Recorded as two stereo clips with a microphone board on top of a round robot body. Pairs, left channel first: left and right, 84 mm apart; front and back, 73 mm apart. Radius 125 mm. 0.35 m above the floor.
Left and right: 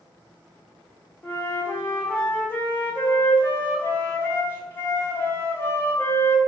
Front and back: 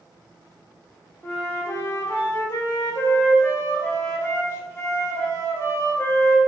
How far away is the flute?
About 1.1 m.